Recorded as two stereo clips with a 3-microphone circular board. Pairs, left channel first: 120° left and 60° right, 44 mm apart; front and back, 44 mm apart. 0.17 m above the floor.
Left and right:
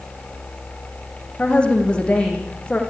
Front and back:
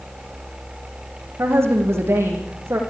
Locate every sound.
1.4 s a woman speaking: 175° right, 7.5 m